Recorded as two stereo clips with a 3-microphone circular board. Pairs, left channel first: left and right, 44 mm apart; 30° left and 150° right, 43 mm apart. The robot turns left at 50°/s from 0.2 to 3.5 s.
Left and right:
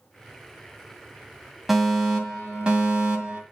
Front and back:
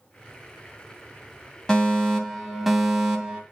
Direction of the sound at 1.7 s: 15° right.